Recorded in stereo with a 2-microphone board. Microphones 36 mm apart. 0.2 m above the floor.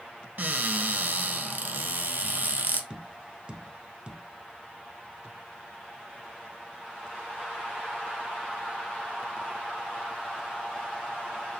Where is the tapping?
30° right (ahead or behind), 0.6 m.